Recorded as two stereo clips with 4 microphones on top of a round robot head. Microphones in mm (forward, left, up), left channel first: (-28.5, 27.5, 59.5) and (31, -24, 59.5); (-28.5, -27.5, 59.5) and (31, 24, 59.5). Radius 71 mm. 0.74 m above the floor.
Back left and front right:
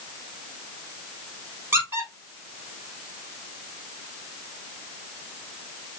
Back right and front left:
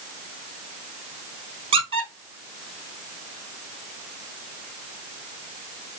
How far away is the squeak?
About 2 m.